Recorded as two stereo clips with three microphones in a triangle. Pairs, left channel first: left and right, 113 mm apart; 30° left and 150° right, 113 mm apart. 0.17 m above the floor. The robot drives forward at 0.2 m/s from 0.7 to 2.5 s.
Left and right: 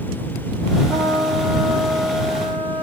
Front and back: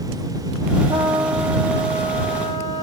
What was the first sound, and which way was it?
A trumpet, 170° right.